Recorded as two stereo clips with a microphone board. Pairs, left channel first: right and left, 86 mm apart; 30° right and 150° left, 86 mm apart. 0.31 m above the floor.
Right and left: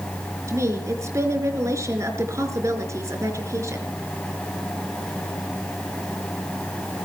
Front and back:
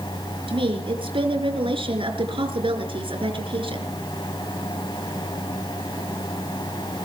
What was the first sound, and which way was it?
A woman speaking, 145° left.